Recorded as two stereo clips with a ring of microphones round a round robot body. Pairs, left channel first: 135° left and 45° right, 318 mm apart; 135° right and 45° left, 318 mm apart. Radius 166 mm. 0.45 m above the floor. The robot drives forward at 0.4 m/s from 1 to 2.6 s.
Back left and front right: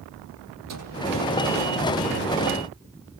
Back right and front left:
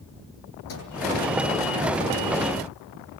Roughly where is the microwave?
Right.